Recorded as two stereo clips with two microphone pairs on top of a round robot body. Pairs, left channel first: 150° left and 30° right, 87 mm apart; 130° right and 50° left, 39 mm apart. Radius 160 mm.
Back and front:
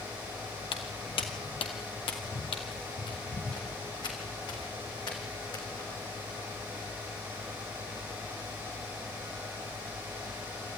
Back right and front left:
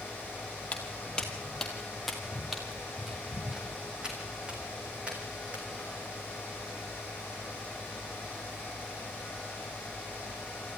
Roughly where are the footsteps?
Behind.